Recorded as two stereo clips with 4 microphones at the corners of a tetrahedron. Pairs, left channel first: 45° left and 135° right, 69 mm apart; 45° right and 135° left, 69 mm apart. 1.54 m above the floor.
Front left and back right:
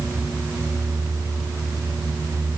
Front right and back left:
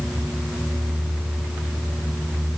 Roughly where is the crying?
I don't hear crying.